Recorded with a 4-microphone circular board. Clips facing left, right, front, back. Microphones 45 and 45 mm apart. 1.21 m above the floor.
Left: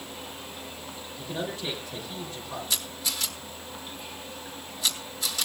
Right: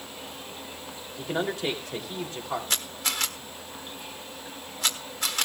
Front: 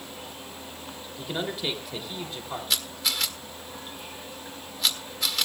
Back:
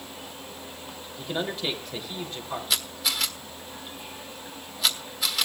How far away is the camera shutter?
About 1.5 m.